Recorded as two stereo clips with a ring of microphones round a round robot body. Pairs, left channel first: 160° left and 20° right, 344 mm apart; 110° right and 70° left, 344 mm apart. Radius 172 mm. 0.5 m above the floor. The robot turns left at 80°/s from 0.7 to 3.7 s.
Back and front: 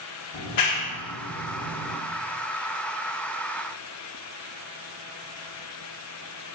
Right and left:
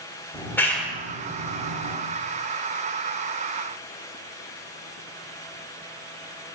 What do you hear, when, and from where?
0.3 s a clap: 165° left, 1.0 m; by 2.0 s 60° left, 1.0 m